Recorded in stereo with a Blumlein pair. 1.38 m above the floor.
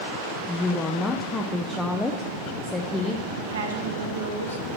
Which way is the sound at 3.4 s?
70° right.